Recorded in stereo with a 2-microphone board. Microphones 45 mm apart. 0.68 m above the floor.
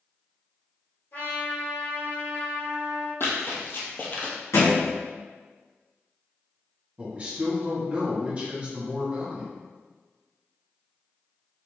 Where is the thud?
75° left (ahead or behind), 1.0 m.